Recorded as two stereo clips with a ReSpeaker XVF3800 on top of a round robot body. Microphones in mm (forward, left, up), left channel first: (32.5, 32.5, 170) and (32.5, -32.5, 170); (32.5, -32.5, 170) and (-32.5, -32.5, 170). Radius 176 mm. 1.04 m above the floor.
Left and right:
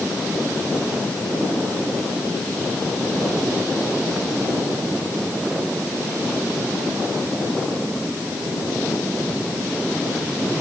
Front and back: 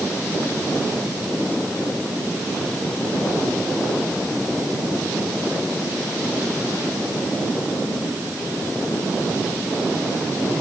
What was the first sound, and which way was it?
Only background noise.